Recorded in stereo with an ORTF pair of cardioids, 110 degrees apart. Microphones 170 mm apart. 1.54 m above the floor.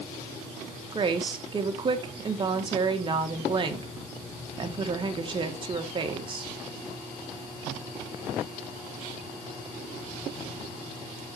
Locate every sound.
0.9 s a woman speaking: 30° right, 1.6 m